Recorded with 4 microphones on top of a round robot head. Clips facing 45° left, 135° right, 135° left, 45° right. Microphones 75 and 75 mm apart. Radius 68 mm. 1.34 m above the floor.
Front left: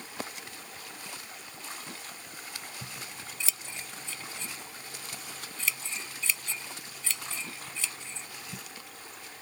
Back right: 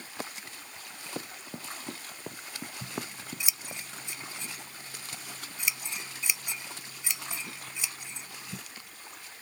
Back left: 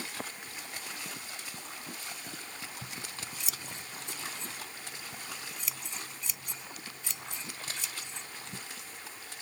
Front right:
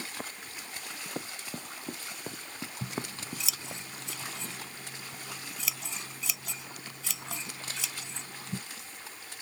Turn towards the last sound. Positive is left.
turn(degrees=-60)